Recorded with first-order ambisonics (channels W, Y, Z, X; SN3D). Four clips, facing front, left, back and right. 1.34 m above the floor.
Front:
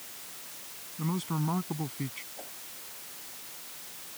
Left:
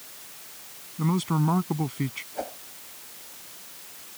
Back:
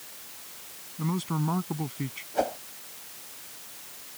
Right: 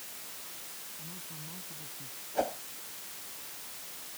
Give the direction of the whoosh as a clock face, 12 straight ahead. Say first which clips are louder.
Right 7 dB, back 19 dB; 6 o'clock.